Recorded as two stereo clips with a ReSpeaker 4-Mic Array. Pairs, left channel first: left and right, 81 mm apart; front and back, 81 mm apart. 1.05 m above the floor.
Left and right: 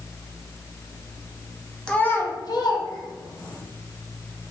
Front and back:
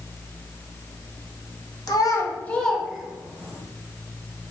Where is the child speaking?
15° left, 0.6 m; by 3.6 s 110° left, 1.1 m.